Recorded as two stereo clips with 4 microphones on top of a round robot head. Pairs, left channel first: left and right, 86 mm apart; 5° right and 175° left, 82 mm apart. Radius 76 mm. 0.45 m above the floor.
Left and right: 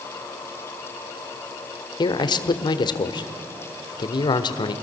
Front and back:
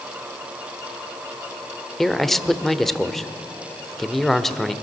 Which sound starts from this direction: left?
A man speaking, at 2.0 s.